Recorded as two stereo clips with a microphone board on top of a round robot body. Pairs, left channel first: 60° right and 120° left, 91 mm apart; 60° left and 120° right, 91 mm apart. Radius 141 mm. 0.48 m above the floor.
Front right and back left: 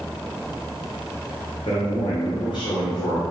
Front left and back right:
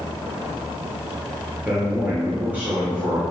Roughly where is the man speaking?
Ahead right.